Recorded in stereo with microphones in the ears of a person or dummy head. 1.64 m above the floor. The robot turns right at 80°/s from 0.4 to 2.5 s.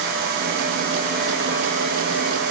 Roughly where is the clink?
No clink in this recording.